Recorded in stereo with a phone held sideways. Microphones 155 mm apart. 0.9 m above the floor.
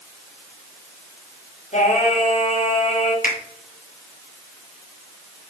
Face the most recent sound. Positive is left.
turn(degrees=65)  # may be behind; listen again after turning